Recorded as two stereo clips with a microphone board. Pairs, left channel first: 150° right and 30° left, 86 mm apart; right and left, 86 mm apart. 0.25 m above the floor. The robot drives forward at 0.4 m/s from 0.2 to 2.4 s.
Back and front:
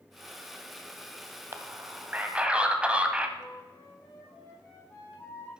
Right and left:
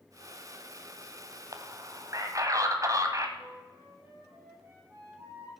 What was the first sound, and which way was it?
A man speaking, 80° left.